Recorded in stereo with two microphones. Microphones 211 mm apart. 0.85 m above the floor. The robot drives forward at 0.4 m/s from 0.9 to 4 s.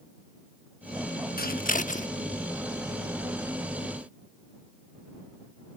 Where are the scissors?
45° left (ahead or behind); by 2.1 s 35° left (ahead or behind).